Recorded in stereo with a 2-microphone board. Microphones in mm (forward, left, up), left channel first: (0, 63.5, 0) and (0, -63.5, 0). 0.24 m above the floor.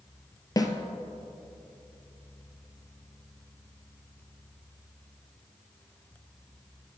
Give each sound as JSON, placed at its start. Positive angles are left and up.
{"t": 0.6, "sound": "a snare drum", "side_deg": 30, "distance_m": 0.7}